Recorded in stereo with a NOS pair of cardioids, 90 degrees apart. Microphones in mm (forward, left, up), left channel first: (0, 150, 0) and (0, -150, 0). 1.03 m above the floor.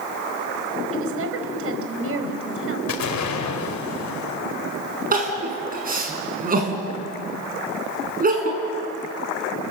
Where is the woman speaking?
45° right, 4.5 m.